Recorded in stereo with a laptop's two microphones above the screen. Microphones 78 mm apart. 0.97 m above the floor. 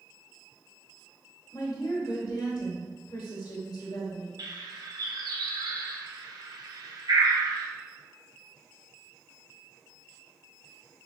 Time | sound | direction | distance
1.5 | a woman speaking | 60° left (ahead or behind) | 1.2 m
4.4 | a bird | 60° right (ahead or behind) | 0.7 m